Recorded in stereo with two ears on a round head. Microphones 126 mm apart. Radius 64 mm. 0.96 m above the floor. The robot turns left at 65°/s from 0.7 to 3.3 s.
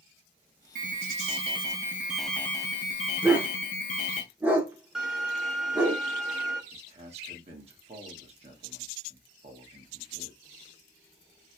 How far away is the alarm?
About 0.7 m.